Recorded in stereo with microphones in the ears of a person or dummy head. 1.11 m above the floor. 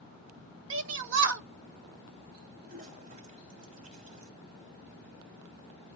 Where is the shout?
65° right (ahead or behind), 1.2 m.